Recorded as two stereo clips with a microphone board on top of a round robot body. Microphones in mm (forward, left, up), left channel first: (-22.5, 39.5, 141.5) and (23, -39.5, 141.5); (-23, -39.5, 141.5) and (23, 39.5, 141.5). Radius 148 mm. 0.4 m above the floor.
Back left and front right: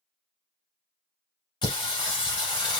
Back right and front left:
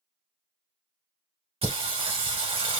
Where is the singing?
80° left, 1.6 m.